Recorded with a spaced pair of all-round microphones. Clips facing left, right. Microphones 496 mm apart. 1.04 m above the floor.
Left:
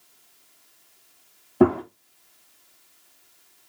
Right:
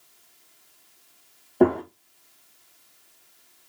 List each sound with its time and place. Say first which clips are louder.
1.6 s a gunshot: left 1 dB; 25° left (ahead or behind), 1.0 m